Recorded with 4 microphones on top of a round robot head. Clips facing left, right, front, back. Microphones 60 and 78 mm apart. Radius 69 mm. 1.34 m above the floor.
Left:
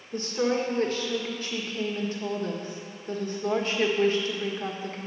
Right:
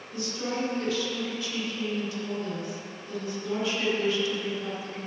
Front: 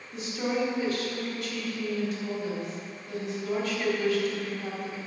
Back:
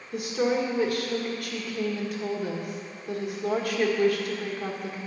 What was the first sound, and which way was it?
A woman speaking, 140° left.